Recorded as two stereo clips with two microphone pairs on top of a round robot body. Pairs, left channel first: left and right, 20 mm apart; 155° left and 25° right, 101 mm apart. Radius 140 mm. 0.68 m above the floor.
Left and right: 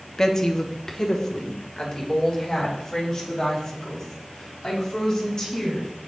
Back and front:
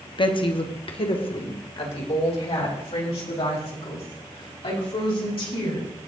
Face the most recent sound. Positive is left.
turn(degrees=150)